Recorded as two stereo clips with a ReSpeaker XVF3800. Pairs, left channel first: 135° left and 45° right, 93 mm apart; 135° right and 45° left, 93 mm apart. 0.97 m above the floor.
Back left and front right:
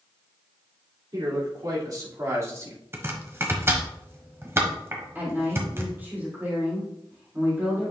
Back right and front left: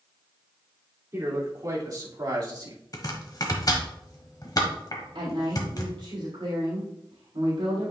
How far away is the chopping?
About 1.2 m.